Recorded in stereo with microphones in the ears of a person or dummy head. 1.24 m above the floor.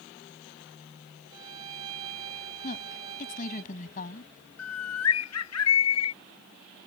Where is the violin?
25° right (ahead or behind).